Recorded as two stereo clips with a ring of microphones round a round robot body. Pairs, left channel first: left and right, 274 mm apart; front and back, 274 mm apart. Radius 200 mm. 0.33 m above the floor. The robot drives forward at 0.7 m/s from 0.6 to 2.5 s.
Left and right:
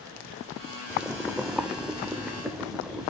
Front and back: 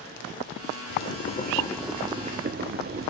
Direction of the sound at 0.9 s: 5° right.